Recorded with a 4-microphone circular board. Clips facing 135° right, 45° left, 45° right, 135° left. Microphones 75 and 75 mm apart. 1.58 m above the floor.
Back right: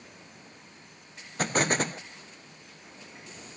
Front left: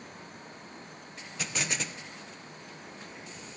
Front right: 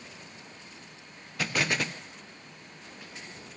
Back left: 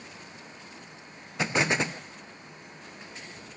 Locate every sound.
1.4 s an explosion: 165° right, 0.7 m